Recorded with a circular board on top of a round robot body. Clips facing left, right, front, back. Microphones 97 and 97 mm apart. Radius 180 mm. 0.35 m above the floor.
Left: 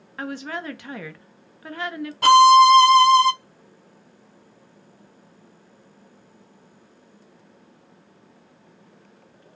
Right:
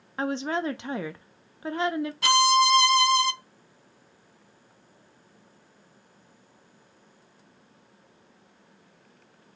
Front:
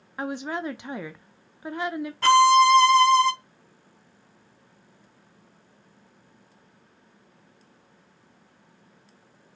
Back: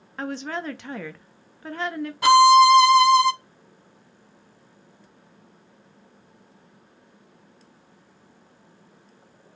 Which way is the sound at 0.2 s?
60° right.